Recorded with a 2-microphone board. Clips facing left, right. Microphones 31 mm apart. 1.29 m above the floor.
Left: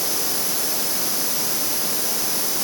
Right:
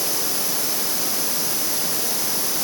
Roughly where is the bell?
I don't hear a bell.